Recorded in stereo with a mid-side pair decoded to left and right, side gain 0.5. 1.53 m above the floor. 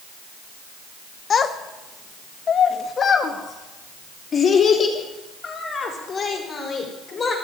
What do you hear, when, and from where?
1.3 s a child speaking: 45° left, 1.2 m; by 7.3 s 35° left, 4.5 m